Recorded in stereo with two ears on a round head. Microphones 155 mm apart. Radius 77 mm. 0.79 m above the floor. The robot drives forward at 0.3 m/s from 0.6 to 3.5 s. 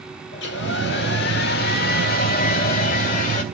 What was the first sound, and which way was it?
A hair dryer, 70° left (ahead or behind).